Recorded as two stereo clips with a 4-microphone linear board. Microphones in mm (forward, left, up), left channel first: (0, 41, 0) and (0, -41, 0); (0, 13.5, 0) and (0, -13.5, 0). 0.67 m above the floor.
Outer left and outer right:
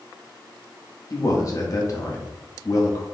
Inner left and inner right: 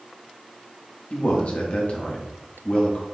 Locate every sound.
1.1 s a man speaking: 45° left (ahead or behind), 1.1 m